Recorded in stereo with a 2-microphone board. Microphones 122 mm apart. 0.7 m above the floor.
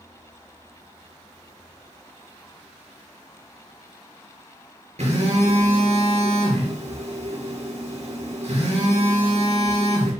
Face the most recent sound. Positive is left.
turn(degrees=-65)  # may be behind; listen again after turning